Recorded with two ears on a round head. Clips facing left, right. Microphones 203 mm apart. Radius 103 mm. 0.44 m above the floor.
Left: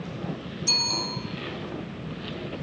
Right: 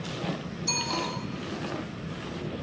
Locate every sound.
0.7 s a bicycle bell: 10° left (ahead or behind), 2.5 m